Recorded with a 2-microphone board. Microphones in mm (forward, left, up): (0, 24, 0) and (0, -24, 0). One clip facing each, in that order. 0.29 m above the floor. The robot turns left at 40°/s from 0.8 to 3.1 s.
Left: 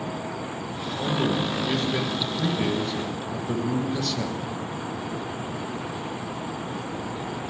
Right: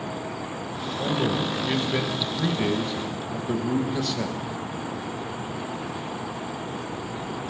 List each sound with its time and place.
1.0 s a man speaking: 15° right (ahead or behind), 0.9 m; by 4.4 s 10° right (ahead or behind), 0.9 m